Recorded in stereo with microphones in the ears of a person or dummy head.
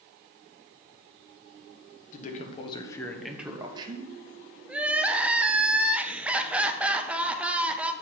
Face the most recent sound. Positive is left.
turn(degrees=-5)  # may be behind; listen again after turning